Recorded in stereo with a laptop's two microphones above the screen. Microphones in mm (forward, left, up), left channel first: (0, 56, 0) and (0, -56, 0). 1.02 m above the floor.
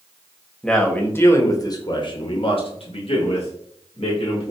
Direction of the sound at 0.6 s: 5° left (ahead or behind).